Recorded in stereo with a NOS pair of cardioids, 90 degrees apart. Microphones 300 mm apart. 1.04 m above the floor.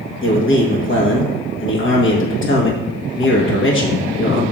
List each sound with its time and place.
0.2 s a man speaking: 45° left, 1.3 m